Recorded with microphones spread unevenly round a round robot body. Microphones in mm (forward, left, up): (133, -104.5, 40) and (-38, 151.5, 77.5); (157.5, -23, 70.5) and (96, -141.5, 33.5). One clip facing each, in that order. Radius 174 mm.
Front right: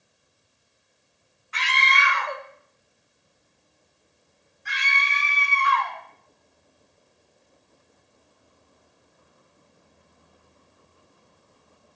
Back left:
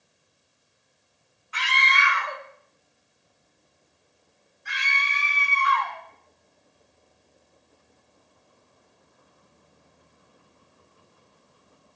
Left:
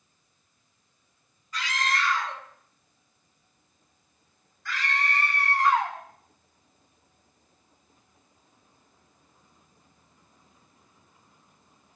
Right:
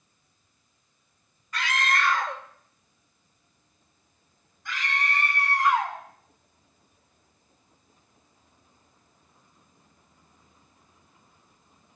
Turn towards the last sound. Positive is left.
turn(degrees=-40)